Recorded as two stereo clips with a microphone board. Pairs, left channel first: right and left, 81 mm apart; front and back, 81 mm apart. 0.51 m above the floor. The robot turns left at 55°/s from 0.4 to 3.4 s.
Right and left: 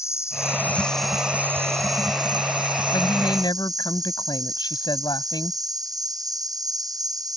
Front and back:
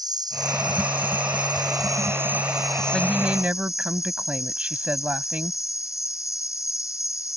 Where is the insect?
145° right; by 7.4 s 50° left.